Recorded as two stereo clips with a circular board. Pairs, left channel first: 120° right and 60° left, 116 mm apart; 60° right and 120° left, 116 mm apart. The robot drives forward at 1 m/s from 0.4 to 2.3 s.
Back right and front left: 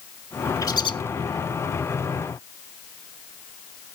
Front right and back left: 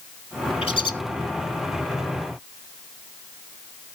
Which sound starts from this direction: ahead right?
A bird, at 0.6 s.